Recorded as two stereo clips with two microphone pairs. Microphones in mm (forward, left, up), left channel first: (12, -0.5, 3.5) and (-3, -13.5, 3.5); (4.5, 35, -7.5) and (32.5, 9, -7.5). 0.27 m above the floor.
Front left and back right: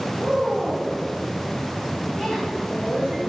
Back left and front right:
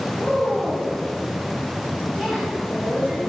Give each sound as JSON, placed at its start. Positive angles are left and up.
{"t": 0.2, "sound": "a woman speaking", "azimuth_deg": 45, "distance_m": 6.0}